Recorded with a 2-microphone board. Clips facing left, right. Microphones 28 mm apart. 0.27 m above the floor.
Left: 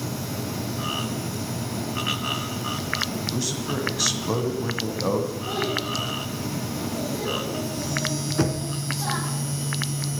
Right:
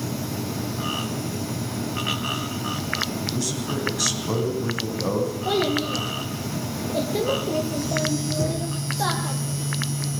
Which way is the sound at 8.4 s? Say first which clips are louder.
Left 1 dB; 60° left (ahead or behind).